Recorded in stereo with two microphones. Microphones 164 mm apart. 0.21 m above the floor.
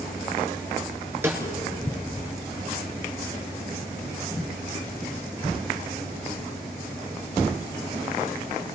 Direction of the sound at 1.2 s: 15° right (ahead or behind).